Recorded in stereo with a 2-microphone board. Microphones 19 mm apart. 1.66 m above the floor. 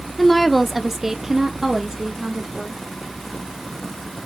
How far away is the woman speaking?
About 0.8 m.